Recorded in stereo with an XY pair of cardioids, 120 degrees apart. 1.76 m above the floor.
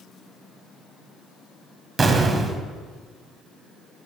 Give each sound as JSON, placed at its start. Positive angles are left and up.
{"t": 2.0, "sound": "an explosion", "azimuth_deg": -30, "distance_m": 0.7}